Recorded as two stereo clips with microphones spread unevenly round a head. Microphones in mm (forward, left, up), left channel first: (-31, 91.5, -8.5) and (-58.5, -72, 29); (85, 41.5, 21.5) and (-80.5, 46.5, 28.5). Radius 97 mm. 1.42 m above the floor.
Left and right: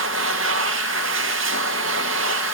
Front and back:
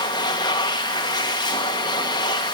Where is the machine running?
70° right, 1.7 m.